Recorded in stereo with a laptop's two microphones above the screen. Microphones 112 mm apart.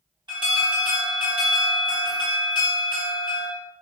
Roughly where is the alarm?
Right.